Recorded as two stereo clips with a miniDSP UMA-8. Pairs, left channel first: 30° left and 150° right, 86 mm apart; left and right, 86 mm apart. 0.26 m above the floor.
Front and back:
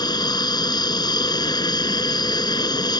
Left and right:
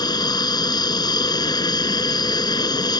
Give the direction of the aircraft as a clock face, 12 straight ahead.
10 o'clock.